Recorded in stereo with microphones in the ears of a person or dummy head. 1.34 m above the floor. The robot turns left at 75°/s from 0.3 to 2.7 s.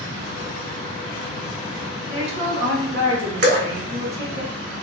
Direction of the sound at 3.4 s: 55° right (ahead or behind).